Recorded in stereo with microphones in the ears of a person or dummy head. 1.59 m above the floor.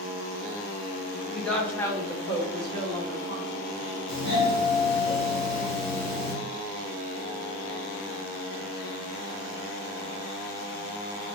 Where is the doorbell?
5° left (ahead or behind), 2.0 m.